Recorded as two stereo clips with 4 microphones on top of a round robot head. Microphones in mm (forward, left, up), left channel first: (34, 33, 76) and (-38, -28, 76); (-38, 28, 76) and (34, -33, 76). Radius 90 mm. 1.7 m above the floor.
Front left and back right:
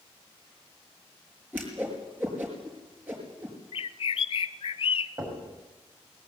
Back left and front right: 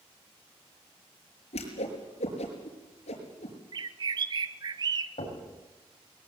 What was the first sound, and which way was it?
A whoosh, 150° left.